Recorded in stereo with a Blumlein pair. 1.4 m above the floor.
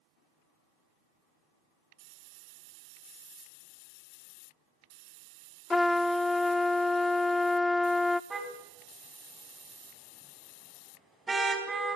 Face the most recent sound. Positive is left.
turn(degrees=-10)